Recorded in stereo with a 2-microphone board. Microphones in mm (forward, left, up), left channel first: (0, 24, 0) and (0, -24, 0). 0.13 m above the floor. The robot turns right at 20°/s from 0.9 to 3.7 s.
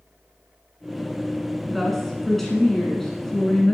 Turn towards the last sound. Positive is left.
turn(degrees=10)  # may be behind; listen again after turning